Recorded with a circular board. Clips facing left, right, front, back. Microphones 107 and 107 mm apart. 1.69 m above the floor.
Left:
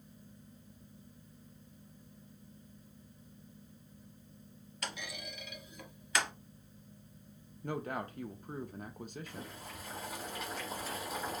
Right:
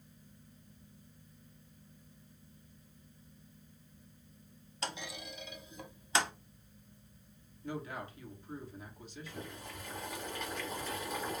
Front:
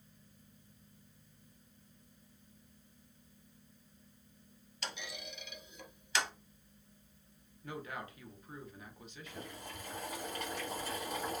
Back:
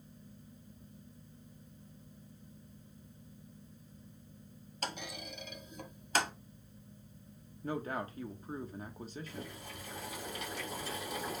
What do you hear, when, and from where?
4.8 s a clunk: 145° right, 0.7 m
7.6 s a man speaking: 125° left, 1.0 m
9.3 s boiling: 5° left, 2 m